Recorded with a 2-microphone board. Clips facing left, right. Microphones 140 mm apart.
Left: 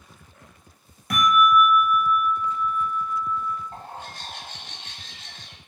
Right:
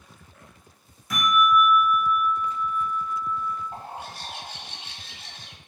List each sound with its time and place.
1.1 s a bell: 70° left (ahead or behind), 1.4 m
3.7 s a bird: 10° right (ahead or behind), 0.6 m